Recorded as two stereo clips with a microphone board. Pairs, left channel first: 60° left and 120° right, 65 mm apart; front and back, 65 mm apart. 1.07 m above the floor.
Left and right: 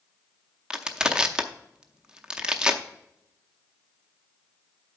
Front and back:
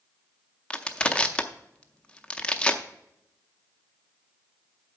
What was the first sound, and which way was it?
Crushing, 55° right.